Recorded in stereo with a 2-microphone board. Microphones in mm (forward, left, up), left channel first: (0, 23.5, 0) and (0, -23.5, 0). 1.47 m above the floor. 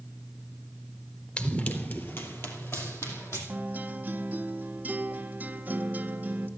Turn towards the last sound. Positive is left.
turn(degrees=-35)  # may be behind; listen again after turning